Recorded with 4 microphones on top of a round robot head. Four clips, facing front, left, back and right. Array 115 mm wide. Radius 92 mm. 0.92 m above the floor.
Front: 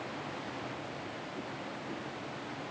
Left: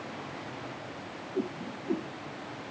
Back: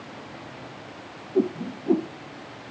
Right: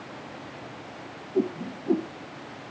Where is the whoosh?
155° right.